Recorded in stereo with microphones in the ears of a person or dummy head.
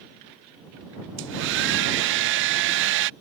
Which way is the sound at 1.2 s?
60° right (ahead or behind).